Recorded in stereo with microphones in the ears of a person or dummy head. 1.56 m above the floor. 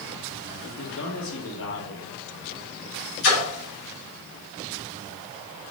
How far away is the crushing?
No crushing in this recording.